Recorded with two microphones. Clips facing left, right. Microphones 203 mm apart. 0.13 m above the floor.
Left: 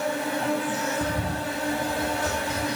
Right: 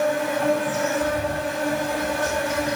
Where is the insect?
75° right (ahead or behind), 7.5 m.